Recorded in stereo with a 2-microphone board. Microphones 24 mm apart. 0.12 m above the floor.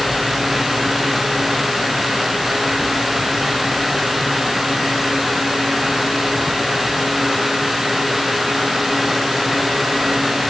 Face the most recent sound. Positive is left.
No sound to turn to.